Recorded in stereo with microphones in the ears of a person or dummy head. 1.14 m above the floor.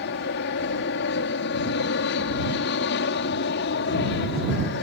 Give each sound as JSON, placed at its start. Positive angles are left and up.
{"t": 0.0, "sound": "an aircraft", "side_deg": 55}